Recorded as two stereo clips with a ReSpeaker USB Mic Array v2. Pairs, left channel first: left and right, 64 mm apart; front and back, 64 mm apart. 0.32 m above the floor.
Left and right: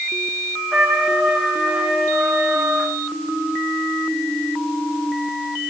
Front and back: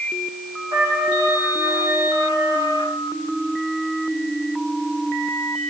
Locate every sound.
0.7 s a trumpet: 165° right, 9 m